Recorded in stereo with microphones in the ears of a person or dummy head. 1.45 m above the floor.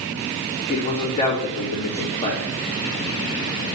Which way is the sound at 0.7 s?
20° left (ahead or behind).